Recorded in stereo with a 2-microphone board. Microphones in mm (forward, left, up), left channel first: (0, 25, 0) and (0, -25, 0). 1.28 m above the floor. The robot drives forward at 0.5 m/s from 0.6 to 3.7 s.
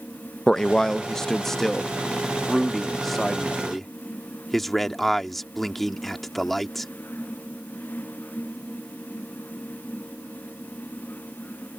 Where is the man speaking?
15° left (ahead or behind); by 6.9 s 5° left (ahead or behind).